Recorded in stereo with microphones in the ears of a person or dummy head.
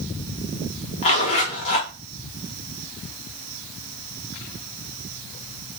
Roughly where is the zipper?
Left.